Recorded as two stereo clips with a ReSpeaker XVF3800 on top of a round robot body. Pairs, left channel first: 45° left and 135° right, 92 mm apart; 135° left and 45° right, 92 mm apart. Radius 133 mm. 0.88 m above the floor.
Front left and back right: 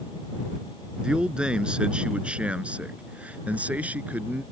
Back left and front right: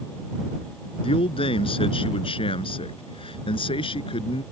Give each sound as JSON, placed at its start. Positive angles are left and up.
{"t": 1.0, "sound": "a man speaking", "azimuth_deg": 145}